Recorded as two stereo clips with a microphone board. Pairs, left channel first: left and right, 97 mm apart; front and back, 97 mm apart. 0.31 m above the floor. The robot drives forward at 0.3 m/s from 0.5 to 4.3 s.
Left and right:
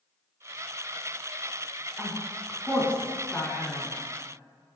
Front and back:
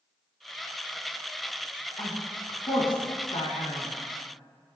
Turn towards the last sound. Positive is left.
turn(degrees=15)